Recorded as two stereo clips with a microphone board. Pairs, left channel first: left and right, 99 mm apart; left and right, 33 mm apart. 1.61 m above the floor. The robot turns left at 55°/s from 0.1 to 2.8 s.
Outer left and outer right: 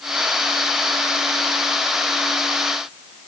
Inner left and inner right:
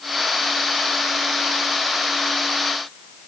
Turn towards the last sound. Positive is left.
No sound to turn to.